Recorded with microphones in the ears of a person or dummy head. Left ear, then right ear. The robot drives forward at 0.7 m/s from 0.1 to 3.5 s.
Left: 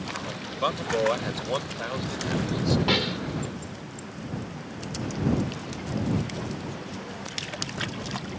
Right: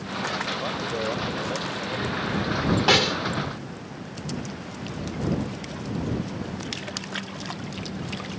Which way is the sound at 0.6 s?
55° left (ahead or behind).